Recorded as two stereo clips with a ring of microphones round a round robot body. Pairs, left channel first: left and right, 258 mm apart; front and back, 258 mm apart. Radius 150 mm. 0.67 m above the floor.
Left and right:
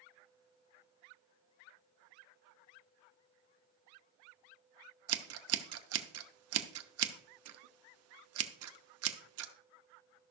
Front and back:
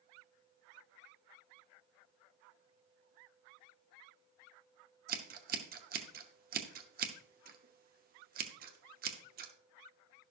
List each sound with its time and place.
5.1 s scissors: 120° right, 0.8 m